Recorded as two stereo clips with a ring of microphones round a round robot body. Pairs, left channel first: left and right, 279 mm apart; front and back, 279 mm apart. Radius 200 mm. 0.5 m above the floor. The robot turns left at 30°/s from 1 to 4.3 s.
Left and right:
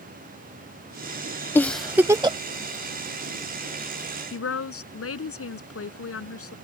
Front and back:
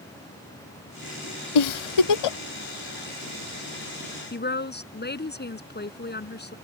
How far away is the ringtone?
I don't hear a ringtone.